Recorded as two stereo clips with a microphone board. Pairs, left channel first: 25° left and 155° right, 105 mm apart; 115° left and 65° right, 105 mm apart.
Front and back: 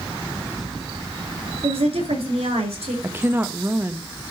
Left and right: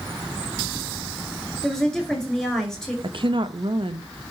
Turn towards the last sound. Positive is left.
turn(degrees=-90)